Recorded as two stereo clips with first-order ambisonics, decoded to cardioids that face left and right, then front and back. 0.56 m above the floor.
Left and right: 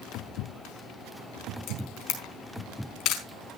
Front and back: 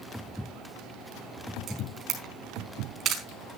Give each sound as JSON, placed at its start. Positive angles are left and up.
{"t": 1.7, "sound": "a camera shutter", "azimuth_deg": 125, "distance_m": 4.5}